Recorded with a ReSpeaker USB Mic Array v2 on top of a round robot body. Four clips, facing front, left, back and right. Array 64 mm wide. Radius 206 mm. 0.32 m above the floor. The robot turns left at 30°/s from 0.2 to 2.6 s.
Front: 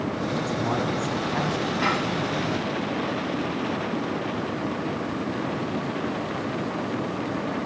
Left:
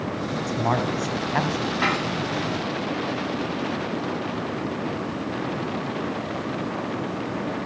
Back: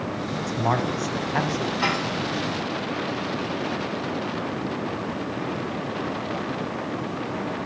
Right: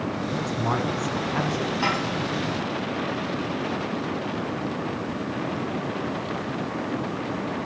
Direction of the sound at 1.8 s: 90° left.